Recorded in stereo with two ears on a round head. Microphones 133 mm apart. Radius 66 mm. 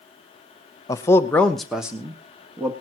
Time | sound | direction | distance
0.9 | a man speaking | 20° left (ahead or behind) | 0.9 m